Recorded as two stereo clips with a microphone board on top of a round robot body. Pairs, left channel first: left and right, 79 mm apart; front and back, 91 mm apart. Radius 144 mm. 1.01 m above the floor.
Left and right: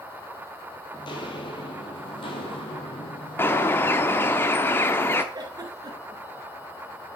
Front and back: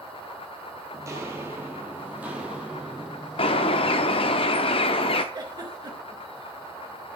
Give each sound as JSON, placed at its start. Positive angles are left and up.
{"t": 0.9, "sound": "footsteps", "azimuth_deg": 120, "distance_m": 1.8}
{"t": 3.4, "sound": "a bird", "azimuth_deg": 25, "distance_m": 0.9}
{"t": 5.3, "sound": "a giggle", "azimuth_deg": -135, "distance_m": 2.5}